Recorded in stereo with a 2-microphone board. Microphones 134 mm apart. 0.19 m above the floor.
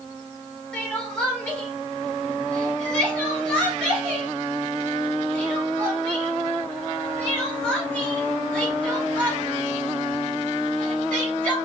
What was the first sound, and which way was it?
Crying, 10° left (ahead or behind).